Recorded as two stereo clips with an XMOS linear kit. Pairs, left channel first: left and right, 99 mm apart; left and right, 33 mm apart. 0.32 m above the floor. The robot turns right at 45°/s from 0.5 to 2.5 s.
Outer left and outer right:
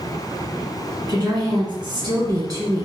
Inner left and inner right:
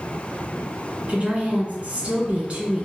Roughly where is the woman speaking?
Right.